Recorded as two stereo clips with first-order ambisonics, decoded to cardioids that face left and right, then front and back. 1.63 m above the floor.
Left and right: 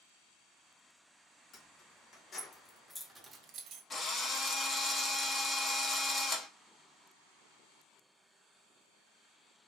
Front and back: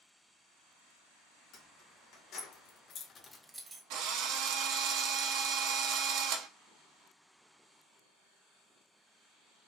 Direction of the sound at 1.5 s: 35° left.